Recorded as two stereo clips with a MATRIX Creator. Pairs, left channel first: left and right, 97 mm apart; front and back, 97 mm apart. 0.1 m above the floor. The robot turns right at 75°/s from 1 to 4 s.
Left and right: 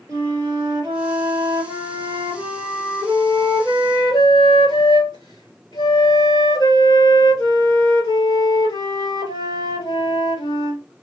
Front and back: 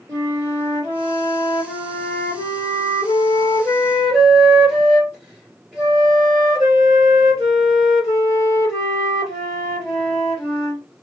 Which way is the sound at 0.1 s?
135° right.